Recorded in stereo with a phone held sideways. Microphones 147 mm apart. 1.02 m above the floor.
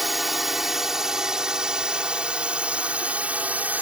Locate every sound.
0.0 s a drone: centre (ahead or behind); by 3.8 s 10° right (ahead or behind)